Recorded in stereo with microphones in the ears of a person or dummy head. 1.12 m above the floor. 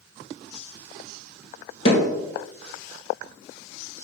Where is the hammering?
45° left (ahead or behind), 3.5 m.